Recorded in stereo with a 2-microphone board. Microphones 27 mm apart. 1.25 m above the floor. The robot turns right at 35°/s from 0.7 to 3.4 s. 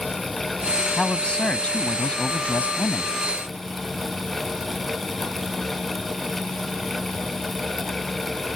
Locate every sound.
1.0 s a man speaking: 25° left; by 3.1 s 100° left